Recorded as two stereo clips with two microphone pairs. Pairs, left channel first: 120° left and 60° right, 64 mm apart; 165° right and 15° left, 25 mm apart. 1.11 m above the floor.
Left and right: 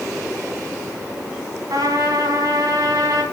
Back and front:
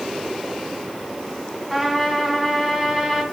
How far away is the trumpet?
About 3 m.